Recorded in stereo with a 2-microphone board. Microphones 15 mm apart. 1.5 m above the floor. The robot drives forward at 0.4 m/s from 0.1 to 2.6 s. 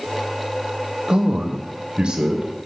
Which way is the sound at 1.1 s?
80° right.